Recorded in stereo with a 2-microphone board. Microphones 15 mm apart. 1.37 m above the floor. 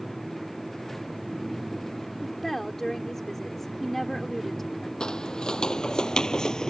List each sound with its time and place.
2.2 s a woman speaking: 20° left (ahead or behind)
5.0 s footsteps: 60° left (ahead or behind); by 6.7 s 45° left (ahead or behind)